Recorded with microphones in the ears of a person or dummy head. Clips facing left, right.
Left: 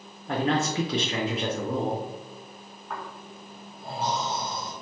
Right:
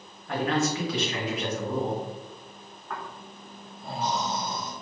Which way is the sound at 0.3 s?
25° left (ahead or behind).